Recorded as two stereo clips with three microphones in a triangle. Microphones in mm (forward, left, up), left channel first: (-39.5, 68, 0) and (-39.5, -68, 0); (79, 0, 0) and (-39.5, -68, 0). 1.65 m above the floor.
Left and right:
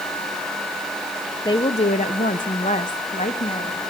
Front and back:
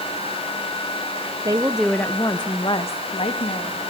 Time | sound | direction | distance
1.4 | a woman speaking | 150° left | 1.0 m